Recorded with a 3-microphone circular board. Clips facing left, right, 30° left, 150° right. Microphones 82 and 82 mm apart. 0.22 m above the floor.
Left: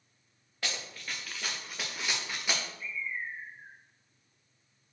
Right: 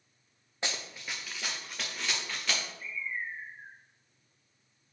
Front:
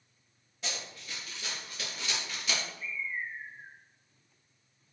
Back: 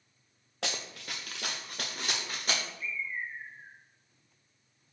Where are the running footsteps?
155° right, 1.0 m; by 2.6 s 165° left, 1.7 m.